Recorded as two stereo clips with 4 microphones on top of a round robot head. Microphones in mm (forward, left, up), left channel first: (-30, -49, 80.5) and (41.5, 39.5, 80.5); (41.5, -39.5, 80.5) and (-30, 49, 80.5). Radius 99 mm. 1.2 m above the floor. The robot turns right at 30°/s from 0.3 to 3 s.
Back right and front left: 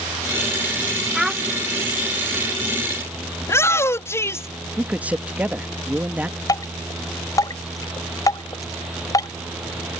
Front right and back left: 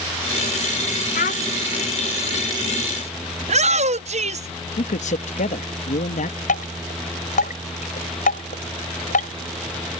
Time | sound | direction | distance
1.1 | a child speaking | 40° right | ?
3.4 | a shout | 160° left | ?
4.8 | a man speaking | 30° right | ?
6.5 | dripping | 65° right | ?